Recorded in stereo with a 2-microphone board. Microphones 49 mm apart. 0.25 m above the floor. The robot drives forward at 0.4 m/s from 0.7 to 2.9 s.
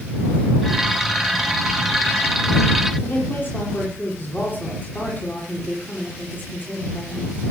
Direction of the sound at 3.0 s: 35° left (ahead or behind).